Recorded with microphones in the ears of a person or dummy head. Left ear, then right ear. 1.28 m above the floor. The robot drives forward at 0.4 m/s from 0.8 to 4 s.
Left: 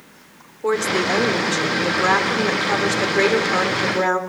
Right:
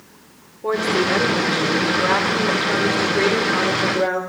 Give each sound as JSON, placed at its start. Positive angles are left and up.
{"t": 0.6, "sound": "a woman speaking", "side_deg": 85, "distance_m": 4.0}